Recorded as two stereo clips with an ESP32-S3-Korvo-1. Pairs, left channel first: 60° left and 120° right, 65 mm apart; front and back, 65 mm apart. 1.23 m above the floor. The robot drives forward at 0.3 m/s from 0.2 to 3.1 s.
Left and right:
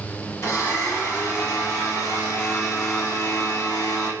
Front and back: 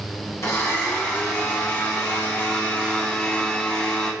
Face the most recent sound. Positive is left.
turn(degrees=65)